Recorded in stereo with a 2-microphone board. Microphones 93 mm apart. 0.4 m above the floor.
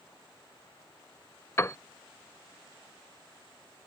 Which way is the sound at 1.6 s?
30° left (ahead or behind).